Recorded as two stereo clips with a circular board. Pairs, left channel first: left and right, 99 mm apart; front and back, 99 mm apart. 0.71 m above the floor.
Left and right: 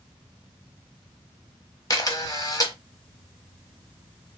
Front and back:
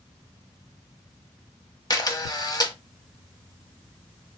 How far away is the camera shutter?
About 0.9 m.